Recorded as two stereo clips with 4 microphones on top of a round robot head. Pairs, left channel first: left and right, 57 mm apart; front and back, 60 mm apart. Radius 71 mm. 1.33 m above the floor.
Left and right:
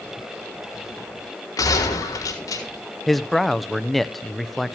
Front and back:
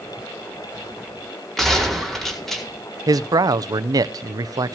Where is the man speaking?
Straight behind, 0.8 m.